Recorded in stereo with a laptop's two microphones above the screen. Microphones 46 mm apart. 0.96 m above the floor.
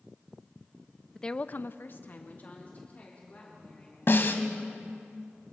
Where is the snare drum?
55° left (ahead or behind), 1.6 m.